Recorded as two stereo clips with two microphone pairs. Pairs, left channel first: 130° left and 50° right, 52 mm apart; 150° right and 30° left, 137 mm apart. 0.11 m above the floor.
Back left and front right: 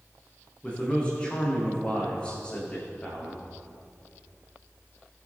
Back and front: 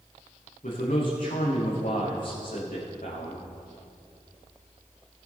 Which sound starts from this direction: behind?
A man speaking, at 0.6 s.